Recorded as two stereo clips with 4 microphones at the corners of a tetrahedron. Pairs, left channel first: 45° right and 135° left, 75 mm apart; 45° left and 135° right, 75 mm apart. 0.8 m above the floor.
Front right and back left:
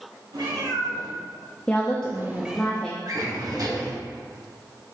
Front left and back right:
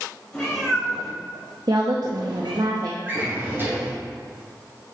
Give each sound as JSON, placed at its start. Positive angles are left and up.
{"t": 0.3, "sound": "a cat meowing", "azimuth_deg": 125, "distance_m": 2.5}
{"t": 1.7, "sound": "a woman speaking", "azimuth_deg": -120, "distance_m": 0.7}
{"t": 3.0, "sound": "a drawer", "azimuth_deg": 165, "distance_m": 2.5}